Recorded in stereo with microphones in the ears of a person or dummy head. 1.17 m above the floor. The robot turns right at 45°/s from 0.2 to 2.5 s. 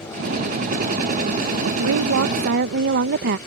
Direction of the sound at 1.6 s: 95° right.